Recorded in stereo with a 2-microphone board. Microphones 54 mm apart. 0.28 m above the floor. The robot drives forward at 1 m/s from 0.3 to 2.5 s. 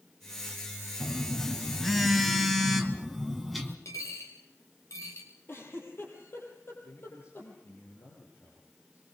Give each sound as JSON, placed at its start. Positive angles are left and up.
{"t": 1.0, "sound": "a phone buzzing", "side_deg": 5, "distance_m": 1.2}
{"t": 3.9, "sound": "a dropped coin", "side_deg": 75, "distance_m": 3.5}
{"t": 5.5, "sound": "a giggle", "side_deg": 50, "distance_m": 6.0}
{"t": 6.8, "sound": "a man speaking", "side_deg": 55, "distance_m": 6.0}